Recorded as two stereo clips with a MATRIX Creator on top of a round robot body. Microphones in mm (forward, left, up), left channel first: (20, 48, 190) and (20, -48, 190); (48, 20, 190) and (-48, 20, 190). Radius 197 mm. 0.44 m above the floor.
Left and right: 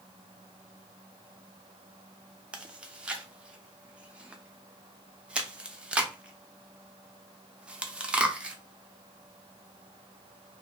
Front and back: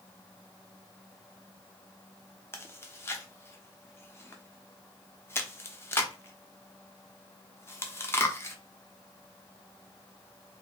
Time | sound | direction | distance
2.5 | chewing | 25° right | 0.8 m